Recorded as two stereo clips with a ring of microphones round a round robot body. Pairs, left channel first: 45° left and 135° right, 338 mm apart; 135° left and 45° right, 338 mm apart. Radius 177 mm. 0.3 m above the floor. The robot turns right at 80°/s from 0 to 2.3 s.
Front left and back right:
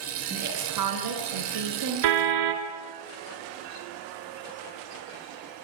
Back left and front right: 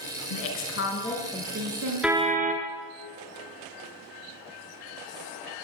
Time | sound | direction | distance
0.3 | a woman speaking | 150° left | 5.5 m
2.0 | a car horn | 135° right | 2.5 m